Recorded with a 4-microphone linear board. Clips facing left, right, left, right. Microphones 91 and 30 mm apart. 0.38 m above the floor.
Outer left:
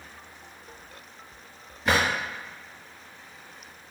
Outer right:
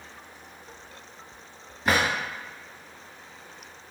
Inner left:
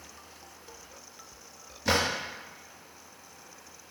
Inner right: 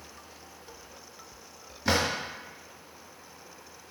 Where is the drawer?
5° right (ahead or behind), 1.1 m.